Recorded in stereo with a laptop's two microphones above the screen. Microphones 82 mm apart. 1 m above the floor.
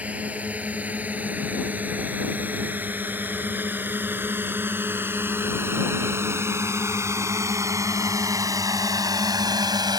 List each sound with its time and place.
0.0 s a drone: 15° right (ahead or behind); by 10.0 s 55° right (ahead or behind)